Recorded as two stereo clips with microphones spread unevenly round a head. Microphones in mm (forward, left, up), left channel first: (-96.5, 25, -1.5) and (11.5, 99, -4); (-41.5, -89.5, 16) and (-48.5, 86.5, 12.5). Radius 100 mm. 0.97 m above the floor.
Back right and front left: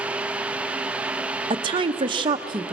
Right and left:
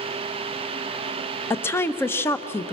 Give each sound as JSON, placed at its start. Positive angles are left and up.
{"t": 1.5, "sound": "a woman speaking", "azimuth_deg": -15, "distance_m": 0.9}